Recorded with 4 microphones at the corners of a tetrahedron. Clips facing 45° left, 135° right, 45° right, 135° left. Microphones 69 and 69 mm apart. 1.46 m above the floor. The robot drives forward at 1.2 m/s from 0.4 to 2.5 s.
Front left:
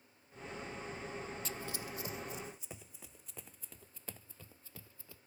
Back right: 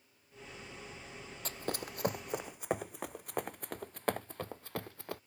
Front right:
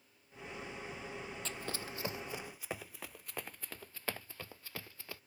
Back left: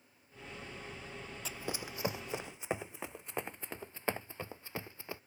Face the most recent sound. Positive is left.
turn(degrees=-155)